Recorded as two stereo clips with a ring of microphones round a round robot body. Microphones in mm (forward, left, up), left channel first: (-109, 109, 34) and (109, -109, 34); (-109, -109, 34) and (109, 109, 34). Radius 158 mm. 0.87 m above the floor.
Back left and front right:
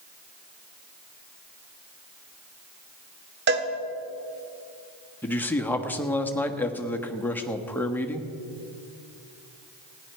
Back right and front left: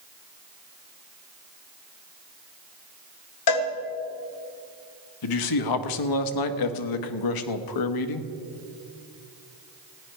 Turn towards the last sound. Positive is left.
turn(degrees=-140)